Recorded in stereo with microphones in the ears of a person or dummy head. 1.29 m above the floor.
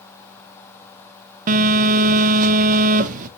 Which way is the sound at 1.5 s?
40° right (ahead or behind).